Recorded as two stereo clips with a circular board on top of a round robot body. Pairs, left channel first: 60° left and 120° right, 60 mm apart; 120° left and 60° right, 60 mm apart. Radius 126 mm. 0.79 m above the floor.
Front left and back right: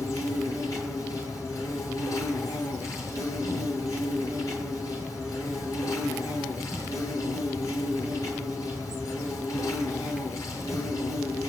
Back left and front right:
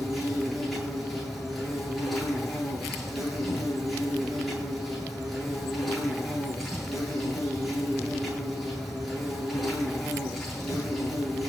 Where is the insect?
25° left, 9.5 m.